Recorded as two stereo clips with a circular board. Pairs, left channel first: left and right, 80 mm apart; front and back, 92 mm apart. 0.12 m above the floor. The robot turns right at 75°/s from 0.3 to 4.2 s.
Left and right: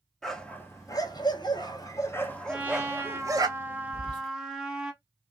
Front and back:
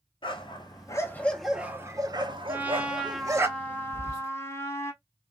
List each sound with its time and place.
0.2 s a dog barking: 5° left, 0.5 m; by 3.5 s 115° right, 0.5 m
2.5 s a trumpet: 145° right, 0.6 m; by 4.9 s 15° right, 0.6 m
3.9 s whispering: 155° left, 2.0 m; by 4.3 s straight behind, 2.0 m